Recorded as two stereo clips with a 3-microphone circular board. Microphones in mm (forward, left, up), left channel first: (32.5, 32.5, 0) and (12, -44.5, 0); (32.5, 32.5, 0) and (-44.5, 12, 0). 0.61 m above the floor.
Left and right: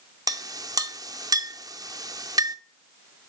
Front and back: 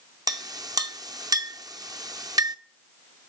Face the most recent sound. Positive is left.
turn(degrees=-135)